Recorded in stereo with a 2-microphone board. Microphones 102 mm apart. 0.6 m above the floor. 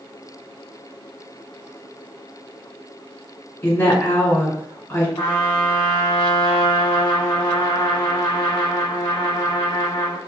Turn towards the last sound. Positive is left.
turn(degrees=50)  # may be behind; listen again after turning